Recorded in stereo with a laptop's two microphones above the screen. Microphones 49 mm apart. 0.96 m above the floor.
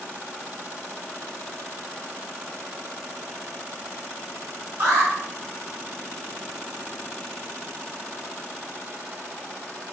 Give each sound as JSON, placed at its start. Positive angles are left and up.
{"t": 4.8, "sound": "an alarm", "side_deg": -60, "distance_m": 5.5}